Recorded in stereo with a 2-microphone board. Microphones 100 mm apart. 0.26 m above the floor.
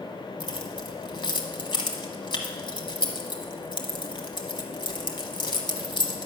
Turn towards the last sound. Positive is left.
turn(degrees=55)  # may be behind; listen again after turning